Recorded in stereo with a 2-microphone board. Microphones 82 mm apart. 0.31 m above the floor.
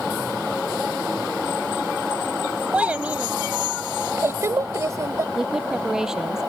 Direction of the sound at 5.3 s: 5° right (ahead or behind).